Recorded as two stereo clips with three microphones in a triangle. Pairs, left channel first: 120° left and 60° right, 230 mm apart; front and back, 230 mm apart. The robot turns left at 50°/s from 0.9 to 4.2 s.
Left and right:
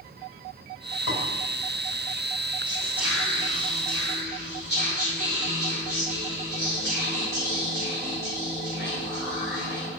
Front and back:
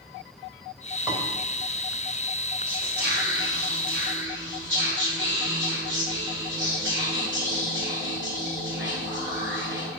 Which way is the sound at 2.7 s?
125° right.